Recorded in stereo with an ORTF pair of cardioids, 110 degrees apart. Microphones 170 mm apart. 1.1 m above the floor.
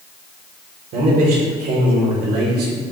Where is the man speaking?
65° right, 3.5 m.